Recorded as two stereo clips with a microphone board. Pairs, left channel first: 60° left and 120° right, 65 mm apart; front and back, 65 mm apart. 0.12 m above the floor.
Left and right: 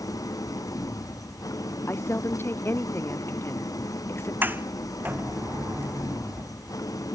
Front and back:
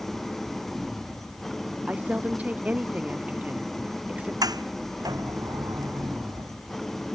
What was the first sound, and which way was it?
An engine running, 85° left.